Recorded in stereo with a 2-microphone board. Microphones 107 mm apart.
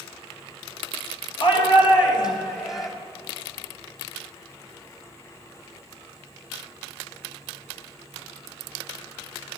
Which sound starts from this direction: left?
A shout, at 1.4 s.